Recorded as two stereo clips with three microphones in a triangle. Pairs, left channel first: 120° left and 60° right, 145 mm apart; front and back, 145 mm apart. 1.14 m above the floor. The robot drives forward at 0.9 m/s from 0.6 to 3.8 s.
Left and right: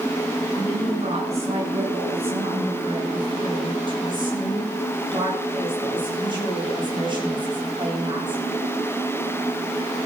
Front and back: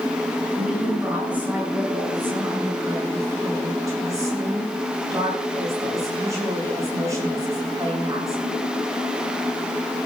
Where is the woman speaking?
95° right, 9 m; by 8.4 s 115° right, 10 m.